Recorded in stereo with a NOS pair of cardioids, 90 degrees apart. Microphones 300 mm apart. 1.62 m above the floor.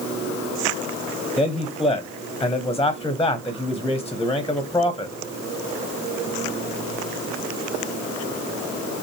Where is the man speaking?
10° left, 0.9 m.